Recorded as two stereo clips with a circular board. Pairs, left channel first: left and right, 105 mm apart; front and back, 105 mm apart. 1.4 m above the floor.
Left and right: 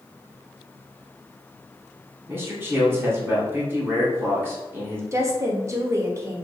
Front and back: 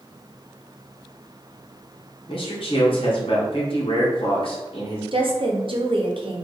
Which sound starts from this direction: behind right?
A woman speaking, at 5.1 s.